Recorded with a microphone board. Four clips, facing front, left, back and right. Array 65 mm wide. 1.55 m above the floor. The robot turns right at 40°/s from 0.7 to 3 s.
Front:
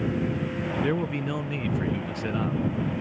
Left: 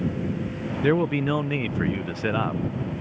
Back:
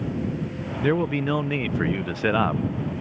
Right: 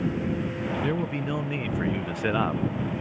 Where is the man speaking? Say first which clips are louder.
Left 10 dB, back 8 dB; 120° left; by 2.6 s 170° right.